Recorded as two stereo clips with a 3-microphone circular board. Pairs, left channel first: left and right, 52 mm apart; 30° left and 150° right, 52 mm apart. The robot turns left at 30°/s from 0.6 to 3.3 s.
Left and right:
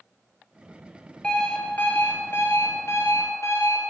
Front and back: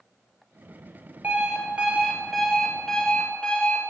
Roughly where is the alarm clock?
Behind.